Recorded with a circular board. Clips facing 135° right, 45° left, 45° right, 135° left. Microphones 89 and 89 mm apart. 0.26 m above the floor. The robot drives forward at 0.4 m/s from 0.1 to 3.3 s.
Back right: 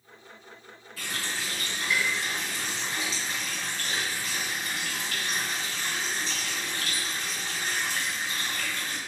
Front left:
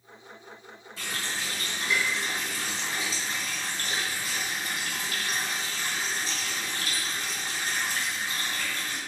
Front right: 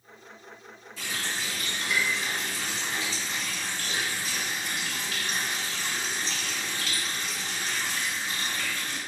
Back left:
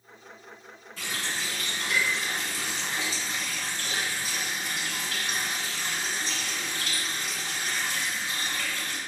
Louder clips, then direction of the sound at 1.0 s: Even, even; 105° left.